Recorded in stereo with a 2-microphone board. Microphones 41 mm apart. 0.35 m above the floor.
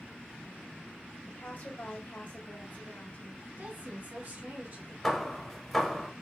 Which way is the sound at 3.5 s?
65° right (ahead or behind).